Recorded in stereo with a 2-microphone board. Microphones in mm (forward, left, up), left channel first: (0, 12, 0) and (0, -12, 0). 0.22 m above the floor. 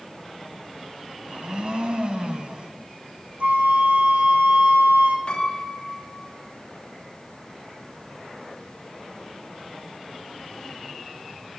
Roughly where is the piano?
Left.